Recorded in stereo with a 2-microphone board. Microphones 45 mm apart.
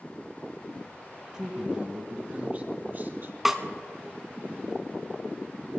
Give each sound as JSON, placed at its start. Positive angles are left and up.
{"t": 1.3, "sound": "a man speaking", "side_deg": -15, "distance_m": 1.8}
{"t": 3.5, "sound": "a snare drum", "side_deg": -5, "distance_m": 1.0}